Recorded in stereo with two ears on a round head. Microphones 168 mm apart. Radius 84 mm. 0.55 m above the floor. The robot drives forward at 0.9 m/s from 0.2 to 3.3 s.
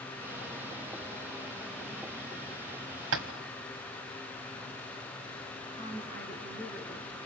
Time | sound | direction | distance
3.1 | tapping | 80° right | 1.7 m
5.7 | a woman speaking | 35° right (ahead or behind) | 6.5 m